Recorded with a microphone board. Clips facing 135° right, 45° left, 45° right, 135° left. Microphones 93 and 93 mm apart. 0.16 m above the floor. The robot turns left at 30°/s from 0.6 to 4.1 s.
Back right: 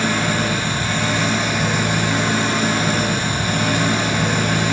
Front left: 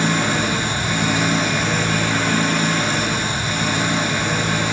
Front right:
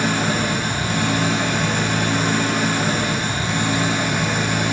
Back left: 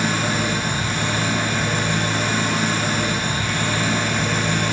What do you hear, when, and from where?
0.0 s an engine running: 20° right, 3.5 m; by 4.7 s 125° right, 3.5 m